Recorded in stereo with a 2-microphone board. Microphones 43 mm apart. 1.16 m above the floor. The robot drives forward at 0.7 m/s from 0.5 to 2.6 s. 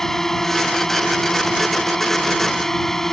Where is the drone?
10° left (ahead or behind).